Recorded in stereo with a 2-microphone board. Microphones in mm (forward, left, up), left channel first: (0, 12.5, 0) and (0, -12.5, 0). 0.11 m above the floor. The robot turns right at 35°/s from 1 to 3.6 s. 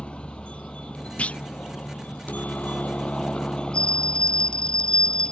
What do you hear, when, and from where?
0.0 s a helicopter: 45° left; by 5.3 s 135° left
1.2 s a clunk: 45° left (ahead or behind); by 1.4 s 55° left (ahead or behind)
3.7 s a bell: 35° left (ahead or behind)